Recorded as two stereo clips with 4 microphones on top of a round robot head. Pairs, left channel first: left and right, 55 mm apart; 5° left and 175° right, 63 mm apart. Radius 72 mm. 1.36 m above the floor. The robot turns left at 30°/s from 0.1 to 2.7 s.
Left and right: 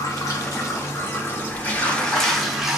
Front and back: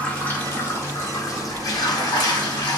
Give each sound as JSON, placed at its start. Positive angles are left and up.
{"t": 0.0, "sound": "running water", "azimuth_deg": 75, "distance_m": 1.3}